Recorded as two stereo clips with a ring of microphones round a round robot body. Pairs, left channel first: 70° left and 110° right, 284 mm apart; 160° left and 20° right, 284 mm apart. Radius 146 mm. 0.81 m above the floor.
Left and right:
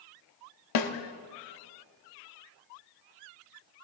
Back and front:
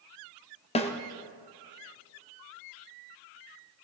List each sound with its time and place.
0.8 s a snare drum: 90° left, 1.0 m